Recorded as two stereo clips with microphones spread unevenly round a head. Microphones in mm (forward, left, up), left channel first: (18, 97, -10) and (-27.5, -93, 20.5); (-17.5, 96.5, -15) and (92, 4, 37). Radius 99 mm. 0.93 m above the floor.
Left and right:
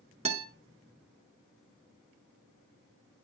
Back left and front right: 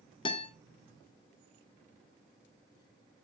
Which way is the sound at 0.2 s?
165° right.